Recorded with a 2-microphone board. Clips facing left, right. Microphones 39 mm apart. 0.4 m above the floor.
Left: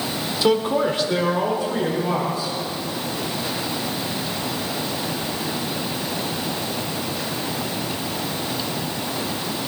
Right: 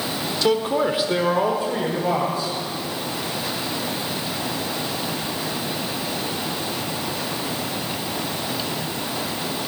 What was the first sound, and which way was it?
A man speaking, 10° left (ahead or behind).